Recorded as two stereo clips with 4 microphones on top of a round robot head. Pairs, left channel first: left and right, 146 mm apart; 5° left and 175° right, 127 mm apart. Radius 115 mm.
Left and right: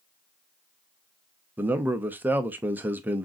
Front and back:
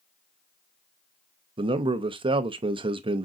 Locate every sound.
1.6 s a man speaking: 160° right, 0.6 m